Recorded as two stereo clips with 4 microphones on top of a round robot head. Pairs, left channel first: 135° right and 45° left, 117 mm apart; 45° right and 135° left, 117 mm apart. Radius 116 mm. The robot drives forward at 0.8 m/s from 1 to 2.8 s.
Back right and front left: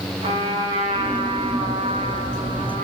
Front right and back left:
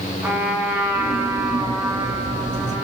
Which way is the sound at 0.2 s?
65° left.